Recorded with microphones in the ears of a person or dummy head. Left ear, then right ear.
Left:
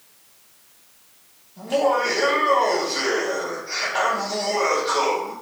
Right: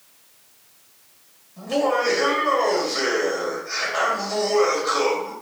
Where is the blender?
I don't hear a blender.